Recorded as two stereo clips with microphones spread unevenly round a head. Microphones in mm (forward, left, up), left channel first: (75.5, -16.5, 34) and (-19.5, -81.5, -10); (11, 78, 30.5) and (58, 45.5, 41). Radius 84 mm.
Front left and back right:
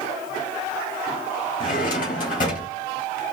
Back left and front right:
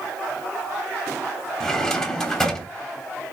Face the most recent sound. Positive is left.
turn(degrees=65)